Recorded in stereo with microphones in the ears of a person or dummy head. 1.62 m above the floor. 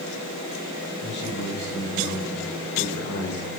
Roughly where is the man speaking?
Left.